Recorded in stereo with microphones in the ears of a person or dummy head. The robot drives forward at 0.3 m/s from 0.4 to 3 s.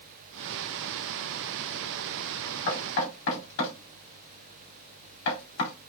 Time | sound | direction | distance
2.7 | knocking | 70° left (ahead or behind) | 2 m